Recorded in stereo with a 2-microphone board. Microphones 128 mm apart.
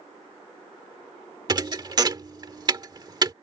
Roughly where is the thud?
Right.